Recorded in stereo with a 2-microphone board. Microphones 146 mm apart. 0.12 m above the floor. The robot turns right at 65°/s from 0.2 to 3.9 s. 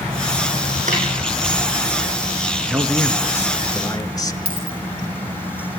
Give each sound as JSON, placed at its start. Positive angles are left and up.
{"t": 0.9, "sound": "a snare drum", "side_deg": -60, "distance_m": 8.0}
{"t": 2.7, "sound": "a man speaking", "side_deg": -5, "distance_m": 1.3}
{"t": 4.5, "sound": "a dropped coin", "side_deg": 80, "distance_m": 4.0}